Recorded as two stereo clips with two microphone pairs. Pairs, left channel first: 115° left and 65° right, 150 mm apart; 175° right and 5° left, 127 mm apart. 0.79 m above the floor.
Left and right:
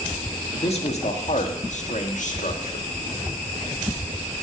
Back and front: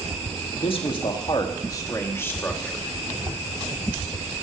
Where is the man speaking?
150° left, 1.8 m; by 2.9 s 105° left, 1.8 m.